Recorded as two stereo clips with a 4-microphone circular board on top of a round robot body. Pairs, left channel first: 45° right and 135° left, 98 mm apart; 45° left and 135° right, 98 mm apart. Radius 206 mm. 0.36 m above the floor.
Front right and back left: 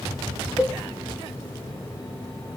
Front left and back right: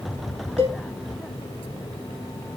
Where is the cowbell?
145° right, 1.1 m.